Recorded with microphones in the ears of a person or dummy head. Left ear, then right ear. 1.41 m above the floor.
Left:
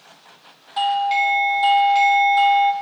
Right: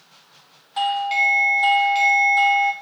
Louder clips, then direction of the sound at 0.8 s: Left 1 dB; centre (ahead or behind).